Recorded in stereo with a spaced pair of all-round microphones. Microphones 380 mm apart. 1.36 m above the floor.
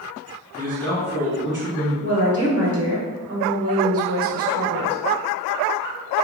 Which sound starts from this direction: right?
A woman speaking, at 2.0 s.